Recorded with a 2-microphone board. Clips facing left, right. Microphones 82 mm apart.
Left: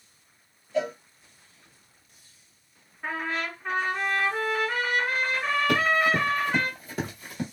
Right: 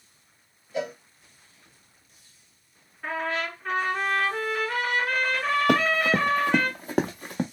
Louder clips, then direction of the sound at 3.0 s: Right 2 dB; 10° left (ahead or behind).